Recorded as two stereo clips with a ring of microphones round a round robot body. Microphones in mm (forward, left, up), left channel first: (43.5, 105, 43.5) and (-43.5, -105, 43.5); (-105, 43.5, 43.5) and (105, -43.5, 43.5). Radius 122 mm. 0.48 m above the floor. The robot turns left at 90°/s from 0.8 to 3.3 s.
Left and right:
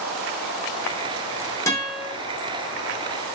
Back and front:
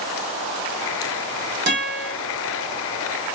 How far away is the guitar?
About 1.2 m.